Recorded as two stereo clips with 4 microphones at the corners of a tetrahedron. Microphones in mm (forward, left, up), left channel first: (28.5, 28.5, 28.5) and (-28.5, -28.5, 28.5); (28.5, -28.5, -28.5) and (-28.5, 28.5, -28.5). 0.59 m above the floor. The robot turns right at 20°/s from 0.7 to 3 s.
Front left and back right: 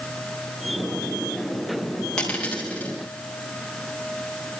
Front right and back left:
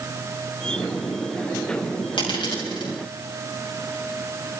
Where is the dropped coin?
35° right, 6.5 m; by 2.9 s 20° right, 6.5 m.